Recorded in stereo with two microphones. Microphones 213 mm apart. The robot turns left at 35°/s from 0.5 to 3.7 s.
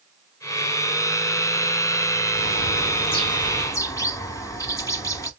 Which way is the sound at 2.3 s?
75° left.